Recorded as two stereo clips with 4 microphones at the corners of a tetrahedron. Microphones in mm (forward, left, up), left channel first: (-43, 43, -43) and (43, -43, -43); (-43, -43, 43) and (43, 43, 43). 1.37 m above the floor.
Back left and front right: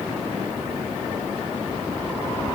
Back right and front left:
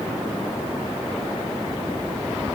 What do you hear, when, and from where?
Only background noise.